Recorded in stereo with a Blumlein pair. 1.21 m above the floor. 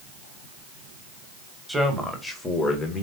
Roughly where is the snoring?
No snoring in this recording.